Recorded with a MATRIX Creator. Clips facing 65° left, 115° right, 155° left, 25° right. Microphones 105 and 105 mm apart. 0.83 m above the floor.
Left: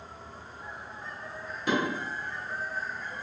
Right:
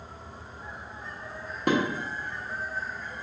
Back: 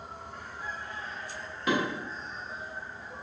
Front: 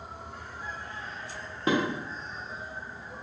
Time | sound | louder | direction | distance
1.7 | dishes clattering | right 4 dB, front 2 dB | 80° right | 1.1 m